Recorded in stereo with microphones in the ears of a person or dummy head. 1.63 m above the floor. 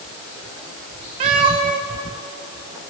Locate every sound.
1.2 s a cat meowing: 25° right (ahead or behind), 0.9 m